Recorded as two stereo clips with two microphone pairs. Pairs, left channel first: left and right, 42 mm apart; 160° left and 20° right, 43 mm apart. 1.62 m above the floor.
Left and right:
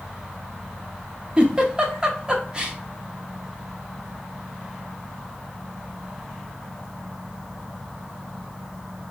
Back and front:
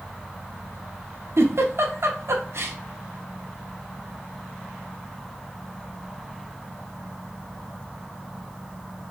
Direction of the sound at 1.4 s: 20° right.